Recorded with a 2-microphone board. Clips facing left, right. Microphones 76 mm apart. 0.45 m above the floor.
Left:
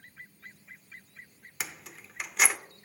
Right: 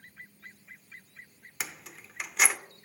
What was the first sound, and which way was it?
Keys jangling, centre (ahead or behind).